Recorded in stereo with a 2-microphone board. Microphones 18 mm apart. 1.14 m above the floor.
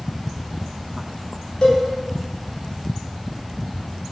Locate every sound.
1.6 s a cowbell: 75° left (ahead or behind), 2 m